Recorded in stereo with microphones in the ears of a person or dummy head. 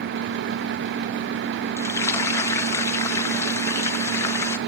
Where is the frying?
15° left (ahead or behind), 0.6 m.